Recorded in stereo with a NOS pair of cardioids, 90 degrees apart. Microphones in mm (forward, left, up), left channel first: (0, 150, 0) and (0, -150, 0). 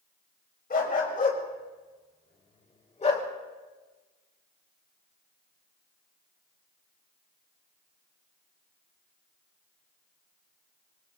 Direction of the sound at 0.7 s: 30° left.